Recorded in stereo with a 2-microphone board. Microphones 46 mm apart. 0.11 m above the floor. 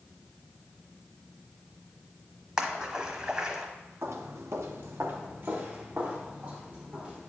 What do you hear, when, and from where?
2.6 s a splash: 20° right (ahead or behind), 1.0 m
4.0 s footsteps: 70° right (ahead or behind), 1.2 m; by 7.3 s 20° right (ahead or behind), 4.5 m